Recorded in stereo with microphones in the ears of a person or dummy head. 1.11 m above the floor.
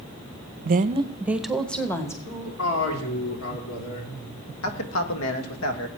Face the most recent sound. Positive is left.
turn(degrees=65)  # may be behind; listen again after turning